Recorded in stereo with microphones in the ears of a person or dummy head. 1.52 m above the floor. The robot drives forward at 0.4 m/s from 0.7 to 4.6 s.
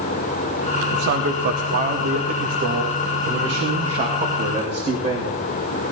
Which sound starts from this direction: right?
A man speaking, at 0.9 s.